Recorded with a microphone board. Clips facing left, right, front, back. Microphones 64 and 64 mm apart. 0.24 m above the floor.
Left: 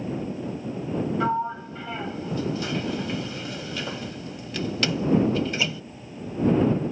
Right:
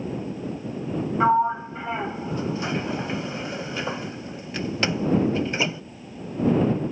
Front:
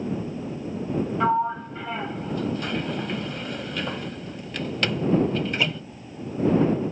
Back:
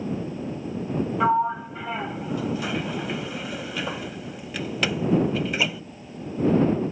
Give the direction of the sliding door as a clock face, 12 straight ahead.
3 o'clock.